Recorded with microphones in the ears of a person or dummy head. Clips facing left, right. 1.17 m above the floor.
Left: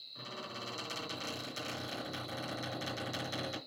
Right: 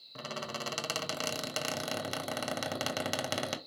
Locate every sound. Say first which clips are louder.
0.1 s a squeak: right 6 dB; 90° right, 1.0 m